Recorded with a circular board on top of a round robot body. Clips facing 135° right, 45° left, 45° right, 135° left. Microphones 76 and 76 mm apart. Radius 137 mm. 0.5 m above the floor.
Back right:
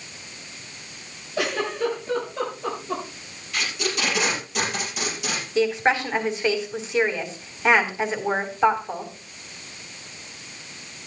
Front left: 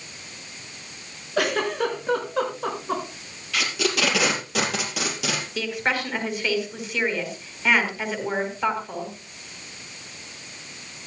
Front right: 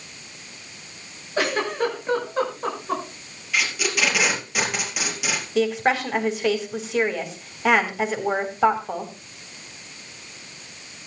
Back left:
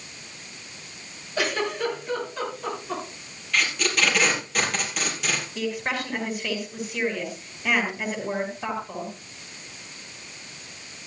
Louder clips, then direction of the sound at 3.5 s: Front left 3 dB, even; 40° left.